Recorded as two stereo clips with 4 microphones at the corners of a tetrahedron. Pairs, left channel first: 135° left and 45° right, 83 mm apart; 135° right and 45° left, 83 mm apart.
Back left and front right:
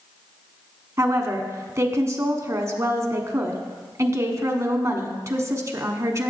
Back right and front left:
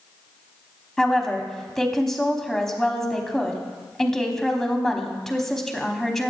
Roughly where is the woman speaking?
Ahead right.